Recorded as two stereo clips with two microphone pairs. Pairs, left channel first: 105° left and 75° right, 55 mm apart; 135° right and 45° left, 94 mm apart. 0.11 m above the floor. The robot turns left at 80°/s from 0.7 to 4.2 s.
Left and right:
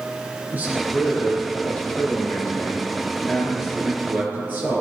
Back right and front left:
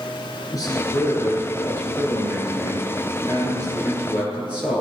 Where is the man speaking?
110° right, 1.9 m; by 4.8 s 30° right, 1.9 m.